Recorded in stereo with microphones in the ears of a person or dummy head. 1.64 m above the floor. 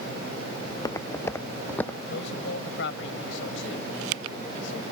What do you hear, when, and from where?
0.7 s footsteps: 20° left (ahead or behind); by 2.0 s 10° left (ahead or behind)
2.1 s a man speaking: 80° left